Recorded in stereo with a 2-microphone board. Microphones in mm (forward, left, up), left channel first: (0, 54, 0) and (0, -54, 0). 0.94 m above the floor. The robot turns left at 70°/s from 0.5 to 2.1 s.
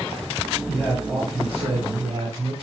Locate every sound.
0.7 s a man speaking: 5° left, 4 m; by 2.5 s 100° right, 4 m